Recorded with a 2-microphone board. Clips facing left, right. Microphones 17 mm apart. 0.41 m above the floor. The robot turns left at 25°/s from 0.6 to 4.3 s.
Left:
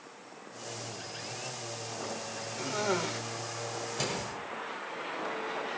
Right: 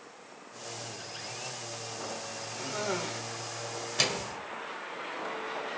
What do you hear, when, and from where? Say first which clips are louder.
2.6 s a cough: left 2 dB; 5° left (ahead or behind), 1.3 m; by 3.2 s 15° left (ahead or behind), 1.3 m
4.0 s a microwave: right 7 dB; 55° right (ahead or behind), 1.7 m; by 4.4 s 50° right (ahead or behind), 1.7 m